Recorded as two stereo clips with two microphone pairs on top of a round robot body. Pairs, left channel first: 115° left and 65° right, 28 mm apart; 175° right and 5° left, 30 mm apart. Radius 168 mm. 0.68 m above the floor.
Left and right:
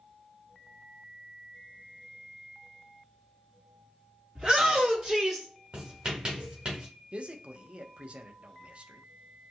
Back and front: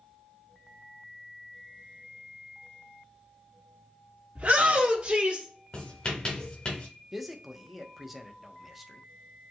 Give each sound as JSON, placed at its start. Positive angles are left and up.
{"t": 4.3, "sound": "a shout", "azimuth_deg": 10, "distance_m": 1.9}
{"t": 5.7, "sound": "writing", "azimuth_deg": -125, "distance_m": 1.4}
{"t": 7.1, "sound": "a man speaking", "azimuth_deg": -70, "distance_m": 1.0}